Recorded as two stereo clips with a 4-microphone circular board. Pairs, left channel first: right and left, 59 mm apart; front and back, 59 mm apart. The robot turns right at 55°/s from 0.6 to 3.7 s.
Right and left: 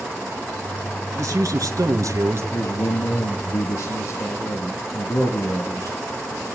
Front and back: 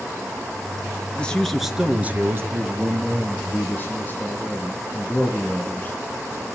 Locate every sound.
1.1 s a man speaking: 65° left, 3.5 m; by 2.4 s 135° left, 3.5 m
2.5 s a man speaking: 125° right, 4.5 m; by 6.0 s 60° right, 4.5 m